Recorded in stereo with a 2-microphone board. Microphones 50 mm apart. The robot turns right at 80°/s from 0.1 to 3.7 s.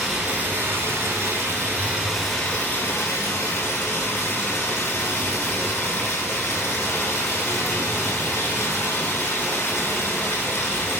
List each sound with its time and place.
0.0 s running water: 170° right, 1.1 m; by 11.0 s 115° left, 1.1 m